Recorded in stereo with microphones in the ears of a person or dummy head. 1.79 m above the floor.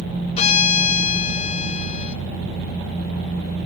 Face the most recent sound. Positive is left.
turn(degrees=40)  # may be behind; listen again after turning